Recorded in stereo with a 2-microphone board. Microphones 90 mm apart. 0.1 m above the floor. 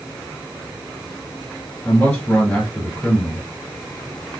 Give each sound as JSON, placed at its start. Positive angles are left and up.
{"t": 1.9, "sound": "a man speaking", "side_deg": 15, "distance_m": 1.8}